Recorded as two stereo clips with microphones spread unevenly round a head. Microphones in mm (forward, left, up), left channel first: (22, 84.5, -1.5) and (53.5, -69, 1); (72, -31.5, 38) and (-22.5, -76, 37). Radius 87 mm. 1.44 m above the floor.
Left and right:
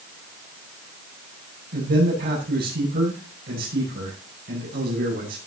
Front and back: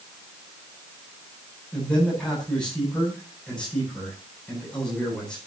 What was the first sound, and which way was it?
A man speaking, 55° right.